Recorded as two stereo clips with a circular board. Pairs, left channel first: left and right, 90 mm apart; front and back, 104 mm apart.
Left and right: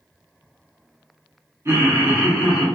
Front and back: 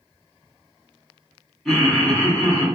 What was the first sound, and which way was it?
Laughter, 90° right.